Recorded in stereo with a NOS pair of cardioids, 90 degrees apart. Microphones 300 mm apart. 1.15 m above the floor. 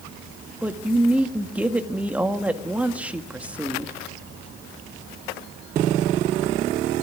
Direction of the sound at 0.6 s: 5° right.